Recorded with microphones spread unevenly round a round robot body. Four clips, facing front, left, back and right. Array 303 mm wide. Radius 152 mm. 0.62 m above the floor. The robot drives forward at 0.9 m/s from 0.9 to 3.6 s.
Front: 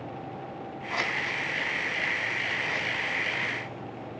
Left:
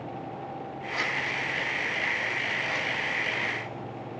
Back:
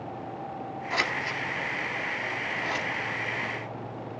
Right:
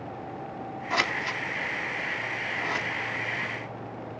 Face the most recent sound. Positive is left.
turn(degrees=-140)